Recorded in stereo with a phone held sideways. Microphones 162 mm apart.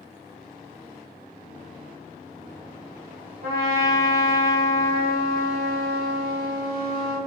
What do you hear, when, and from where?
3.4 s a trumpet: 65° right (ahead or behind), 1.3 m